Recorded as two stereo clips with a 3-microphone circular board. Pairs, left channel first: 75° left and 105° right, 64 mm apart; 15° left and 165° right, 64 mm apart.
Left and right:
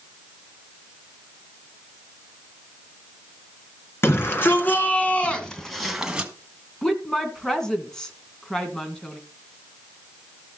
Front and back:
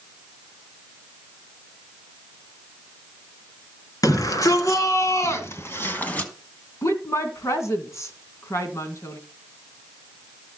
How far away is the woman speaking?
About 2.5 m.